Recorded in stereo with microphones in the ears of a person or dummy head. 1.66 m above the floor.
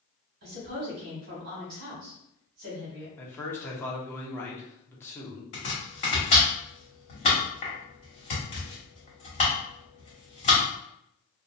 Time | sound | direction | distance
0.4 | a woman speaking | 55° right (ahead or behind) | 1.1 m
3.2 | a man speaking | 20° left (ahead or behind) | 0.7 m
5.5 | chopping | 40° left (ahead or behind) | 1.0 m